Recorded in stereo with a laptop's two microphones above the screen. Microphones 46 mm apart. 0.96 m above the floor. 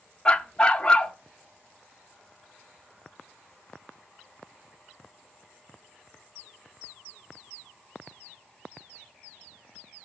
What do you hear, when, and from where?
0.2 s a dog barking: 20° left (ahead or behind), 0.5 m